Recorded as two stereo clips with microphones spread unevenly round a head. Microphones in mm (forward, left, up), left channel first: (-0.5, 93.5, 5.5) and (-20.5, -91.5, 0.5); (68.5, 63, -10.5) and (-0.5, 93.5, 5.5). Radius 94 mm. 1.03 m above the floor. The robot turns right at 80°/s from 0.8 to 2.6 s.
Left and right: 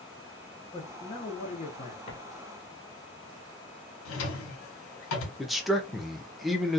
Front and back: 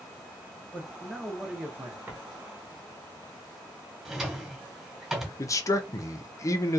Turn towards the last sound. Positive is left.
turn(degrees=-10)